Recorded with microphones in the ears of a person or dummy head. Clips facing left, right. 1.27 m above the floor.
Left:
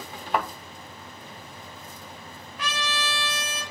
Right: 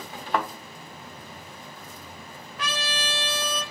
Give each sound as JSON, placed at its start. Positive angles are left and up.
{"t": 0.3, "sound": "a thud", "side_deg": 10, "distance_m": 0.5}
{"t": 2.6, "sound": "a trumpet", "side_deg": -45, "distance_m": 0.7}